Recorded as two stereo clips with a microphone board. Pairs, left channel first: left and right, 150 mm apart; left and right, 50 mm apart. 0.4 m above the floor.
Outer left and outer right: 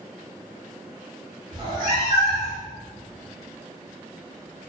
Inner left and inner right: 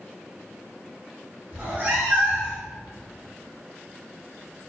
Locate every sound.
1.5 s a cat meowing: 35° right (ahead or behind), 0.8 m